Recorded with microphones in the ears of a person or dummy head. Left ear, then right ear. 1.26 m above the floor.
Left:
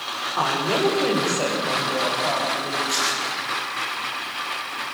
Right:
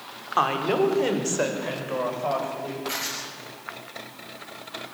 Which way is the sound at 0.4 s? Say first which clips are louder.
Even; 65° right (ahead or behind).